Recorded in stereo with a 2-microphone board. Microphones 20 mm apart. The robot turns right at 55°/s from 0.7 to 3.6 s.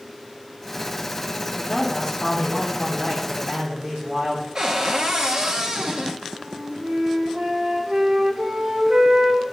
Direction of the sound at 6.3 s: 65° right (ahead or behind).